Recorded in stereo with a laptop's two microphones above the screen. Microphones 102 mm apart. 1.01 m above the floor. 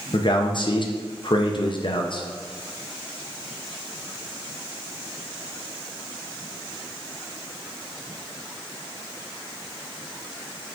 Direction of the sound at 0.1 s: 50° left (ahead or behind).